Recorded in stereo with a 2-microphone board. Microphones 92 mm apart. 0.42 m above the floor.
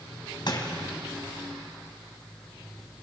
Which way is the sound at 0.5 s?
50° left (ahead or behind).